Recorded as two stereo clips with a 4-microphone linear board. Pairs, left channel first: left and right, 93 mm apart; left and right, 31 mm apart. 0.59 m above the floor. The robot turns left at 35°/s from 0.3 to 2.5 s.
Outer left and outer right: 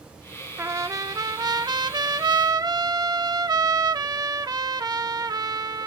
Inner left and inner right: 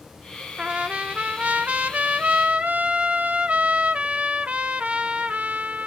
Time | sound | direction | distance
0.6 | a trumpet | 45° right | 0.8 m